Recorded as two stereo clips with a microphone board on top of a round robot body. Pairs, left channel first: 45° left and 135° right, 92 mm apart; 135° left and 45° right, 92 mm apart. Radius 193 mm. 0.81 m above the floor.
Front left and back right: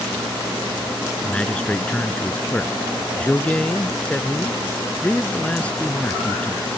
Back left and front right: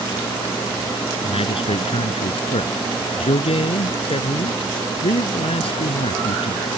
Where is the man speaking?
125° left.